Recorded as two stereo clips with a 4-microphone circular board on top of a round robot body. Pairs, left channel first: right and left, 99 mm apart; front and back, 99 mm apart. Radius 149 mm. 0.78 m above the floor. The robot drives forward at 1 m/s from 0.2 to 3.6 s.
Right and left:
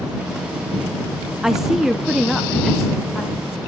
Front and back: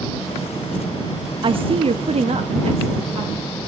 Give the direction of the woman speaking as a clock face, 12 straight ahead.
6 o'clock.